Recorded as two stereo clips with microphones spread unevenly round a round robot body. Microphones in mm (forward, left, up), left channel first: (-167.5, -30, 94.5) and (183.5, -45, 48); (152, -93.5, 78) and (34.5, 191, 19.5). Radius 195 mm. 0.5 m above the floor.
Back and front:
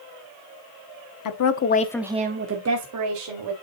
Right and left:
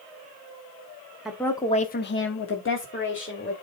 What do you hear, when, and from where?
1.2 s a woman speaking: 170° right, 1.2 m; by 3.5 s 10° right, 2.5 m